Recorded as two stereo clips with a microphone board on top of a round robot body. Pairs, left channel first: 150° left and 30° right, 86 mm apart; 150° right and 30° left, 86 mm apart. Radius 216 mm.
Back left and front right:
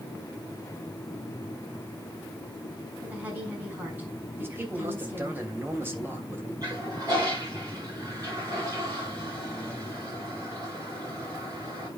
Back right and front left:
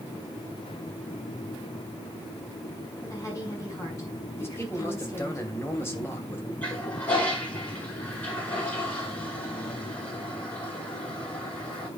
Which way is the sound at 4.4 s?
90° right.